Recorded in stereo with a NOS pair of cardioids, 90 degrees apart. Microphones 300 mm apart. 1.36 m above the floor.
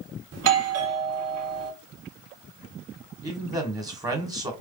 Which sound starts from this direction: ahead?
A man speaking, at 3.2 s.